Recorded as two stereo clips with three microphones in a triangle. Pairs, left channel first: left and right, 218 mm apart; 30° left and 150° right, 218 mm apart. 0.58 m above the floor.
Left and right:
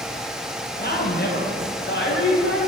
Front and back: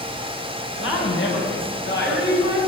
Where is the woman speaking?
50° left, 3 m; by 2.6 s 65° left, 4.5 m.